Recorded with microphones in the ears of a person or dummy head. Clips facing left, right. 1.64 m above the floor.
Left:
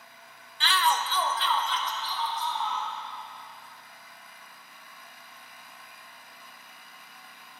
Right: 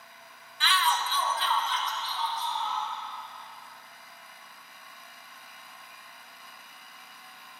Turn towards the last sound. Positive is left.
turn(degrees=75)  # may be behind; listen again after turning